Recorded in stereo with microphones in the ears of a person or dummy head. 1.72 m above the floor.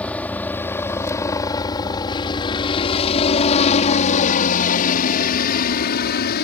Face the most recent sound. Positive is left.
turn(degrees=55)  # may be behind; listen again after turning